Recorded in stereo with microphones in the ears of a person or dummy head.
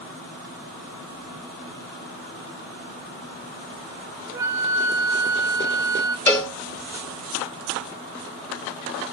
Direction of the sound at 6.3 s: 15° left (ahead or behind).